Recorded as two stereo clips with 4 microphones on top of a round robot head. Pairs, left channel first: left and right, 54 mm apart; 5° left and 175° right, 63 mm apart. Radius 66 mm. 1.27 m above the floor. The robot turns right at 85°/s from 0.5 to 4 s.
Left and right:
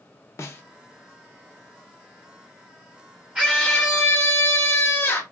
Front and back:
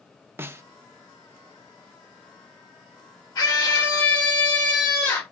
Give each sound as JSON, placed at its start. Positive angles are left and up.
{"t": 0.4, "sound": "a snare drum", "azimuth_deg": 130, "distance_m": 0.5}
{"t": 3.4, "sound": "a scream", "azimuth_deg": -20, "distance_m": 1.2}